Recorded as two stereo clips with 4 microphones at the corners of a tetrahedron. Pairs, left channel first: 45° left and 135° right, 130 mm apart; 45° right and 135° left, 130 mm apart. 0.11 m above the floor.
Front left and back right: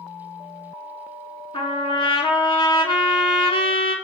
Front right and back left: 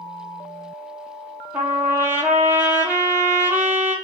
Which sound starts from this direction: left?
A trumpet, at 1.5 s.